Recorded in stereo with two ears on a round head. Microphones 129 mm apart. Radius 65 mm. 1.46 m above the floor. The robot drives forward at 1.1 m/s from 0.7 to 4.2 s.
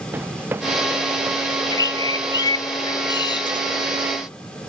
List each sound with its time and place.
0.1 s running footsteps: 15° right (ahead or behind)
1.5 s a bird: 25° left (ahead or behind); by 3.6 s 30° left (ahead or behind)